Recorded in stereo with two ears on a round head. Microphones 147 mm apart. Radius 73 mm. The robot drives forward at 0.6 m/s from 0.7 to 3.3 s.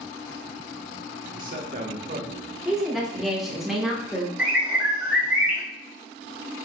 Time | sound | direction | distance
1.3 | a man speaking | 55° right (ahead or behind) | 1.0 m
2.6 | a woman speaking | centre (ahead or behind) | 1.9 m
4.4 | a bird | 10° right (ahead or behind) | 1.7 m